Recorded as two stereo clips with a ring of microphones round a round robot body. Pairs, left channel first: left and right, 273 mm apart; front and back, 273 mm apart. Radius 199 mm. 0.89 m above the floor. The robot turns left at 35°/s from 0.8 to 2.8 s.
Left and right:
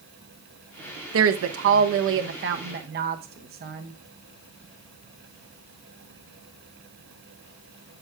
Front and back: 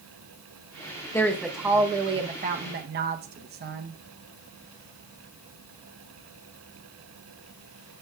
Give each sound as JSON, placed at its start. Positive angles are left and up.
{"t": 1.1, "sound": "a woman speaking", "azimuth_deg": -80, "distance_m": 0.7}